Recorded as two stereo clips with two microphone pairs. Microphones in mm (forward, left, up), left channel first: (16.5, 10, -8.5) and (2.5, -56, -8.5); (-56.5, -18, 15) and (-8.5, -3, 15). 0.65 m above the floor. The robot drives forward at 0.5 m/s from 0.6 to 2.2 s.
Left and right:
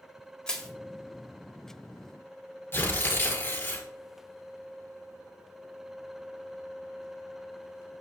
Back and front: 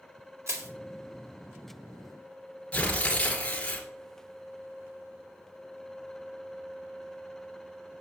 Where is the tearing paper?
130° left, 2 m.